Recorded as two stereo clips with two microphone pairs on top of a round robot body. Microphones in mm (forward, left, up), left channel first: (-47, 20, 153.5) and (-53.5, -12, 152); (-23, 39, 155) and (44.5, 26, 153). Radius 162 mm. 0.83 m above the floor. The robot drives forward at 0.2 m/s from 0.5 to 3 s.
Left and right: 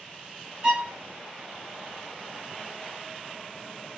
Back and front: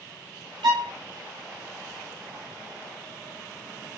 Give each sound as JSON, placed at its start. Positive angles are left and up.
{"t": 0.6, "sound": "a violin", "azimuth_deg": -30, "distance_m": 0.5}